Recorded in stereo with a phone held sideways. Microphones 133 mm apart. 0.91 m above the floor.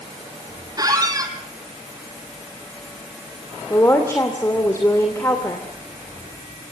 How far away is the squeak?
About 2.5 m.